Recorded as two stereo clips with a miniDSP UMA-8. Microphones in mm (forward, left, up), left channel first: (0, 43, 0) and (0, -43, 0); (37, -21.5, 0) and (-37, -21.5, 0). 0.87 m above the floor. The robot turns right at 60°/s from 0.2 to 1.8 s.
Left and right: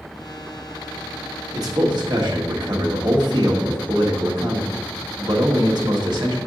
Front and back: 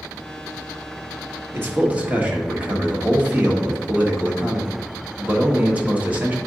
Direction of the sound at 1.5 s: 130° right.